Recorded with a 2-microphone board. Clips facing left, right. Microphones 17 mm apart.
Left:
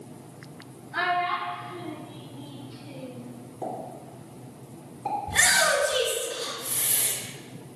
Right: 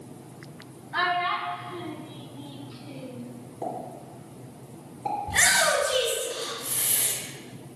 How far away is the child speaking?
About 1.4 m.